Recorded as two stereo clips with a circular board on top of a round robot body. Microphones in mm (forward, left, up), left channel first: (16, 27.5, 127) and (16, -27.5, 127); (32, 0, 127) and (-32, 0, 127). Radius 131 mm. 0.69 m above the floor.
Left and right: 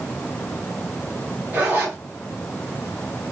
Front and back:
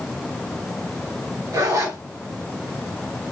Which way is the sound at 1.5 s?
150° right.